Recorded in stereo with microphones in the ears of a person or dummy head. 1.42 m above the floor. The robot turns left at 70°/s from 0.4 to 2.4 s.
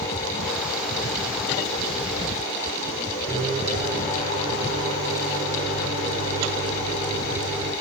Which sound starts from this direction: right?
A microwave, at 3.3 s.